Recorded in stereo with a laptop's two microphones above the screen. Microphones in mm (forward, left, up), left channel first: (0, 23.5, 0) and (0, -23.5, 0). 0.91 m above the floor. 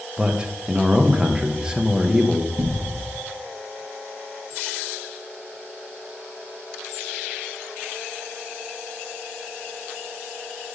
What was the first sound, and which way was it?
A man speaking, 15° right (ahead or behind).